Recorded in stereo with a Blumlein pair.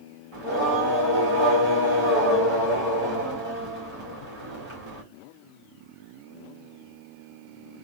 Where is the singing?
40° right, 1.9 m.